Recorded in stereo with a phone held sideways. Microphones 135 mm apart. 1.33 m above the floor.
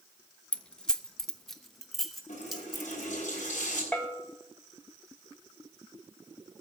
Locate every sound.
0.5 s keys jangling: 10° left (ahead or behind), 0.5 m; by 3.1 s centre (ahead or behind), 2 m
2.3 s a running tap: 60° left (ahead or behind), 9 m
3.9 s a bell: 10° left (ahead or behind), 1.8 m